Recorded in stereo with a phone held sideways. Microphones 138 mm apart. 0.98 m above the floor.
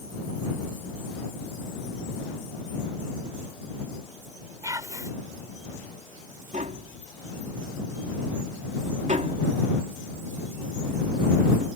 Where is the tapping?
65° right (ahead or behind).